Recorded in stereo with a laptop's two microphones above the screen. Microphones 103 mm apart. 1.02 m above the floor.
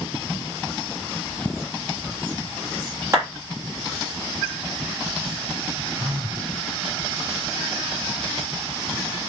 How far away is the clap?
About 1.5 m.